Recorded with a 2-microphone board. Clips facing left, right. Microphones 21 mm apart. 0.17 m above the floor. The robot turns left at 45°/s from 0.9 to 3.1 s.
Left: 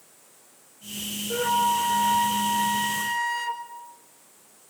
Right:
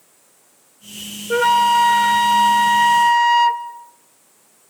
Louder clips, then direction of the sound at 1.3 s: Right 9 dB; 60° right.